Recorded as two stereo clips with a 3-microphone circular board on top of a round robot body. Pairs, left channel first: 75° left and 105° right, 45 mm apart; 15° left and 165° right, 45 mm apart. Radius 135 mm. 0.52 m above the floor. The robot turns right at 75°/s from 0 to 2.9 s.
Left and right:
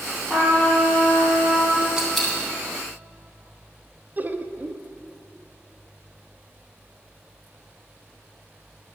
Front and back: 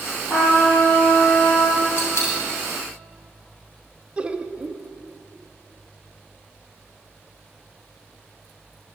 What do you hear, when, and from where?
0.3 s a trumpet: 10° right, 3 m; by 1.9 s 110° left, 3 m
2.0 s a dropped coin: 30° right, 2.0 m; by 2.4 s 5° left, 2.0 m
4.2 s laughter: 115° right, 0.7 m